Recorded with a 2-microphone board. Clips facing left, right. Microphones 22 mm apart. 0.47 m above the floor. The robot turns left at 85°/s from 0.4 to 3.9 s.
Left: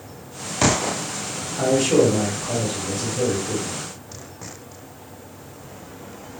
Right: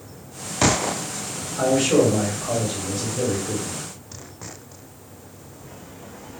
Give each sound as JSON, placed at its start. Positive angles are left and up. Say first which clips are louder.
{"t": 1.6, "sound": "a man speaking", "louder": "even", "azimuth_deg": -5, "distance_m": 1.6}